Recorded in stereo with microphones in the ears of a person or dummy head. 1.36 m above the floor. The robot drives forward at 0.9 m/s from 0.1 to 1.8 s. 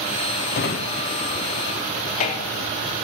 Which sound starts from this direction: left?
A drawer, at 0.5 s.